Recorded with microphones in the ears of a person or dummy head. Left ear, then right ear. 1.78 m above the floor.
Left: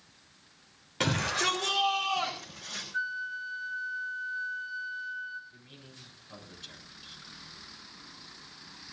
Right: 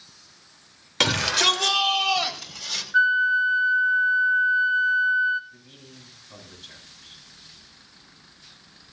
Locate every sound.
1.0 s a shout: 40° right (ahead or behind), 3.5 m; by 2.8 s 55° right (ahead or behind), 6.5 m
2.9 s a flute: 40° right (ahead or behind), 1.0 m
5.5 s a man speaking: centre (ahead or behind), 8.5 m